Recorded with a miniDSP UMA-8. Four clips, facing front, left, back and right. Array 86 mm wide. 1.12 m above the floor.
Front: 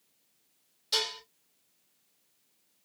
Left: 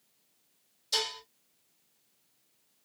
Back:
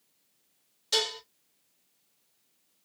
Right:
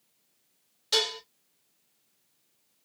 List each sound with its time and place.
0.9 s dishes clattering: 105° right, 2 m